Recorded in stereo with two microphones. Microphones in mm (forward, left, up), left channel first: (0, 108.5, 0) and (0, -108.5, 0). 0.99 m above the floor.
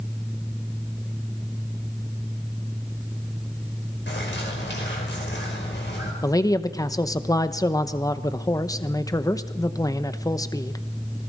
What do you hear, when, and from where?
4.1 s a bird: 55° left (ahead or behind), 5 m
6.2 s a man speaking: 15° left (ahead or behind), 0.9 m